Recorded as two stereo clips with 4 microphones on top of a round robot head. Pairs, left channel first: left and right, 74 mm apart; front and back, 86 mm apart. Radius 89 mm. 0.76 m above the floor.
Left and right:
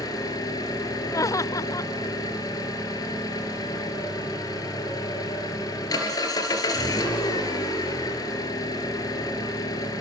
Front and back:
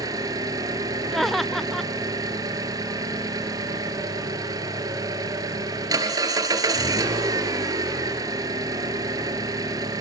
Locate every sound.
0.0 s an engine running: 135° left, 3.5 m
1.1 s laughter: 90° left, 0.7 m